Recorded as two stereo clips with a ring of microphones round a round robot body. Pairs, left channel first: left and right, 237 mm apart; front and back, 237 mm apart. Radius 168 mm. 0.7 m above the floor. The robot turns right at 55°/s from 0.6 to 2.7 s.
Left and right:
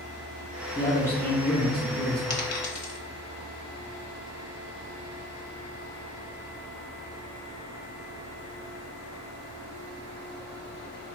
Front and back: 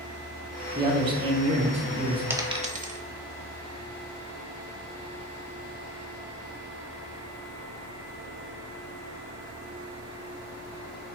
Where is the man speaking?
135° left, 0.7 m; by 2.2 s 145° right, 0.7 m.